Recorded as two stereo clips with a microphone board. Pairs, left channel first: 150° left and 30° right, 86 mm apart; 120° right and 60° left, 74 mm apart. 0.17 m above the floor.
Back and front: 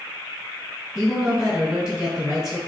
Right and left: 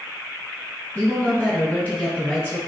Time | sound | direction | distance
0.9 | a woman speaking | 100° right | 1.3 m